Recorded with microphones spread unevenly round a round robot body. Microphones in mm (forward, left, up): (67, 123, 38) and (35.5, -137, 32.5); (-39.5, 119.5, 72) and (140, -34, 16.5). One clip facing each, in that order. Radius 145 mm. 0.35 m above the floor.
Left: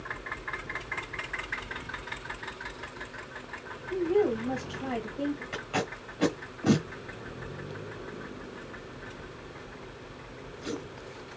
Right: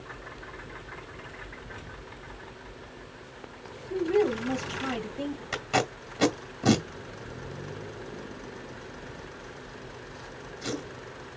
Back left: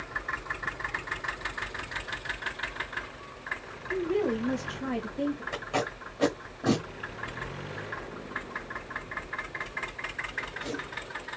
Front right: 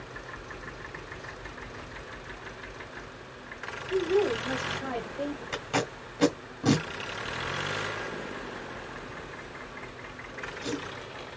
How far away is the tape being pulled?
About 1.7 m.